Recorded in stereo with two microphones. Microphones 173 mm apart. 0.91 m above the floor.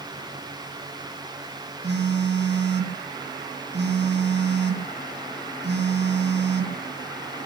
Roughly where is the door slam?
I don't hear a door slam.